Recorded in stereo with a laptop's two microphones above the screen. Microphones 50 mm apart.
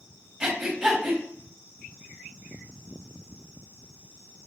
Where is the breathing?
10° right (ahead or behind), 2 m.